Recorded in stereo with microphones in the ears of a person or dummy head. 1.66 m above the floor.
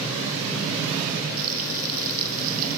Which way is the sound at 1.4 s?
50° right (ahead or behind).